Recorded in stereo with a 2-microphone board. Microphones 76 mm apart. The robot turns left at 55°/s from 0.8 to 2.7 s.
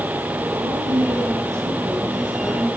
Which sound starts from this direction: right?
A woman speaking, at 0.5 s.